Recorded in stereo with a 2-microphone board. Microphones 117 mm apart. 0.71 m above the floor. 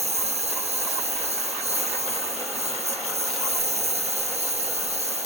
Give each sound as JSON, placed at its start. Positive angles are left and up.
{"t": 0.0, "sound": "a lawn mower", "side_deg": -60}